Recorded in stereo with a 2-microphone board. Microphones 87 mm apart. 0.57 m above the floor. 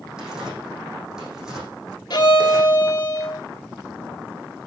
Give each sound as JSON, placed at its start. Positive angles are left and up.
{"t": 0.2, "sound": "tearing paper", "side_deg": -5, "distance_m": 8.0}
{"t": 2.1, "sound": "a violin", "side_deg": 55, "distance_m": 3.0}